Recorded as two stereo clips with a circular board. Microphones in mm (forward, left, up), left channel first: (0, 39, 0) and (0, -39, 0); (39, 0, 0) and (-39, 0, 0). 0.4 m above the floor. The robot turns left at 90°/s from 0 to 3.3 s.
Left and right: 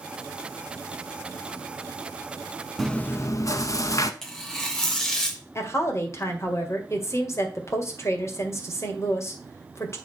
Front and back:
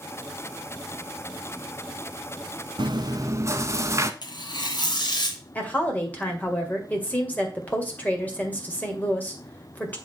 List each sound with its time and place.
2.8 s chewing: straight behind, 0.7 m; by 4.1 s 130° left, 0.7 m
4.2 s tearing paper: 10° left, 1.6 m
5.5 s a woman speaking: 60° left, 1.9 m